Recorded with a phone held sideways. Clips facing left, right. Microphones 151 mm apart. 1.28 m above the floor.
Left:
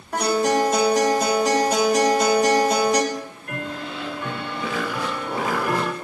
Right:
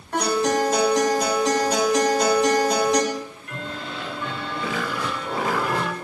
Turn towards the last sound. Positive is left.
turn(degrees=50)  # may be behind; listen again after turning